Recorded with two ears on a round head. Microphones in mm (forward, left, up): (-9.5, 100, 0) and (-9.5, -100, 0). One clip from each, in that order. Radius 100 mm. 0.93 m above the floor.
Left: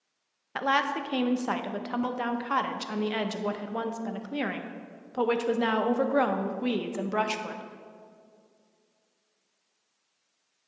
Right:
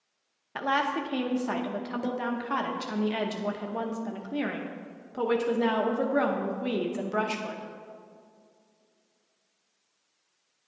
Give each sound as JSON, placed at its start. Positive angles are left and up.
{"t": 0.6, "sound": "a woman speaking", "side_deg": 20, "distance_m": 0.6}